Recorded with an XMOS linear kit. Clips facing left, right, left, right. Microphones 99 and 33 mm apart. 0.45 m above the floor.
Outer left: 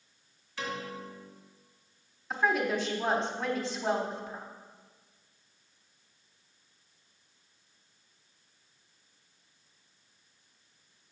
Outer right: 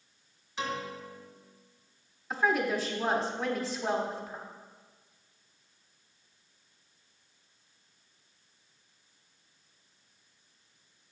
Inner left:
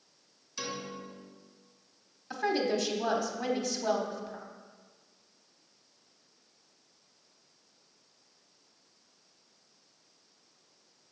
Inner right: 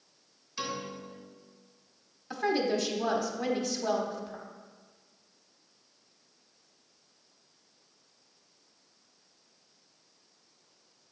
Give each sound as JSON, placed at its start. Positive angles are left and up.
{"t": 0.6, "sound": "a piano", "side_deg": -20, "distance_m": 2.5}
{"t": 2.3, "sound": "a woman speaking", "side_deg": 0, "distance_m": 1.1}